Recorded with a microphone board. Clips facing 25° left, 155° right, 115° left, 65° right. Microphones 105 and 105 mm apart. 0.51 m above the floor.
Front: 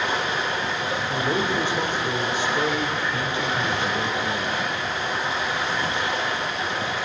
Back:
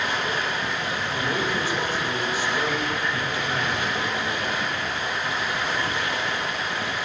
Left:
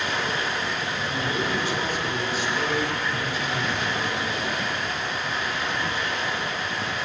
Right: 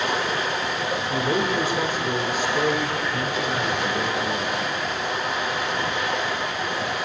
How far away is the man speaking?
About 1.7 m.